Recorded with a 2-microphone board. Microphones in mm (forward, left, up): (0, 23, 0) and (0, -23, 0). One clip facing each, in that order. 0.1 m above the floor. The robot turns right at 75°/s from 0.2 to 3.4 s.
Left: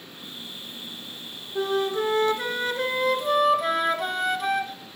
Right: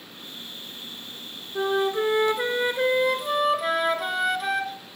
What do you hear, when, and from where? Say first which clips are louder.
1.6 s a flute: right 1 dB; 10° right (ahead or behind), 0.8 m; by 4.8 s centre (ahead or behind), 0.8 m